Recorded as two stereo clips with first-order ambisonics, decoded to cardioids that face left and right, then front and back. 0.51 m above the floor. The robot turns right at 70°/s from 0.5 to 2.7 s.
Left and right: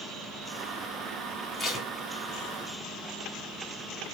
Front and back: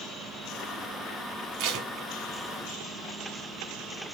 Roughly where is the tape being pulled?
Behind.